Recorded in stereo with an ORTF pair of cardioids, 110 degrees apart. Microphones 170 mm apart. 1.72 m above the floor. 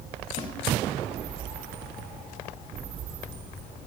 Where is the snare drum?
45° left, 3.5 m.